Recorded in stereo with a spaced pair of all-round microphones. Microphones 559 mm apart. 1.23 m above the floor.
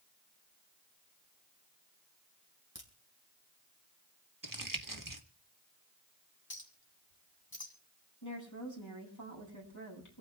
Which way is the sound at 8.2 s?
30° left (ahead or behind).